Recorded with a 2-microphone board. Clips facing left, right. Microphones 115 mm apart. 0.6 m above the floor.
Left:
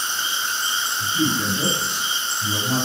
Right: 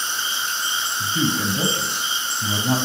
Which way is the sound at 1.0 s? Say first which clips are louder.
Even; 50° right (ahead or behind).